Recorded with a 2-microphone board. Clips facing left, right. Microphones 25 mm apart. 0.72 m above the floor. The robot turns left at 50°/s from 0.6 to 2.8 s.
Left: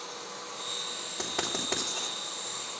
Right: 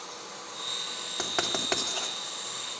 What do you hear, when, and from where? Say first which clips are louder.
1.2 s writing: right 3 dB; 50° right (ahead or behind), 3 m; by 2.1 s 80° right, 3 m